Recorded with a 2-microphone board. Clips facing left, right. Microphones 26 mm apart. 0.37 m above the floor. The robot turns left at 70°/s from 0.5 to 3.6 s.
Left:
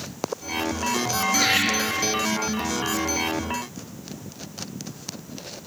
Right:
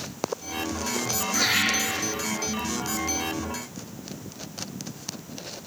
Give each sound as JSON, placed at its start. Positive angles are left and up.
{"t": 1.3, "sound": "laughter", "side_deg": 35, "distance_m": 3.0}